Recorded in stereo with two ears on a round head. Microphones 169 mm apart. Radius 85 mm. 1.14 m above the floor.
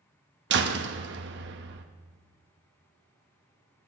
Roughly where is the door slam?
Right.